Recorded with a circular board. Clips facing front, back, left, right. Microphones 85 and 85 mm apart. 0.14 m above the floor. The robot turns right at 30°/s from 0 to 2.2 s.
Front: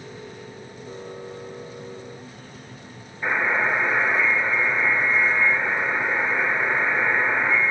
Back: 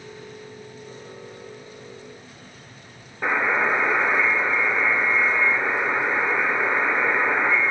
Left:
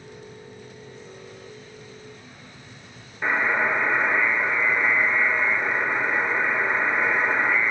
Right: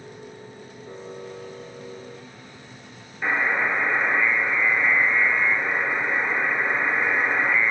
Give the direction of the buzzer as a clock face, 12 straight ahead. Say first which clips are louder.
Back 1 dB, left 1 dB; 6 o'clock.